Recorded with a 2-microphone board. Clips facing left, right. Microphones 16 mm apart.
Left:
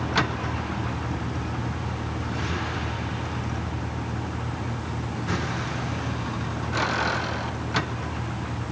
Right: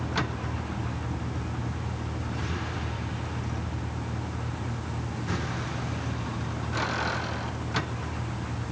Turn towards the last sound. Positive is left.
turn(degrees=20)  # may be behind; listen again after turning